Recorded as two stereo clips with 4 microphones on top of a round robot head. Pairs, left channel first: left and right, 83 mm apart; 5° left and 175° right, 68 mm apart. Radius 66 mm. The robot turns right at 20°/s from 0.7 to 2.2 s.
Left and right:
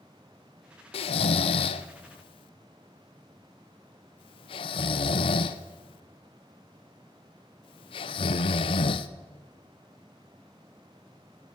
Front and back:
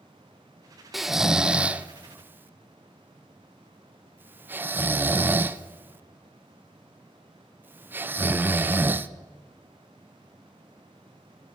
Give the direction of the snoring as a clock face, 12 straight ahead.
9 o'clock.